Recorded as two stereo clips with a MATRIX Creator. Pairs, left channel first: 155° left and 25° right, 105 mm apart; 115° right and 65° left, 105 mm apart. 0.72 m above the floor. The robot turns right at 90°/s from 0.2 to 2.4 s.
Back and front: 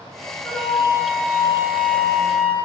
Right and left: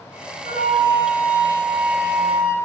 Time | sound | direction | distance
0.4 | a flute | 130° right | 4 m